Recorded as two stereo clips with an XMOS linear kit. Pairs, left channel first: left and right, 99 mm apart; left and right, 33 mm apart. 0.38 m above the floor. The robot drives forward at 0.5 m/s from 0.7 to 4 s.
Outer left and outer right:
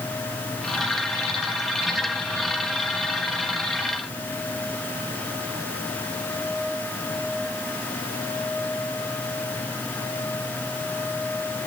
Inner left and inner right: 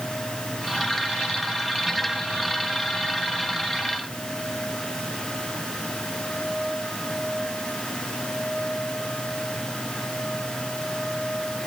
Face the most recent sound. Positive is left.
No sound to turn to.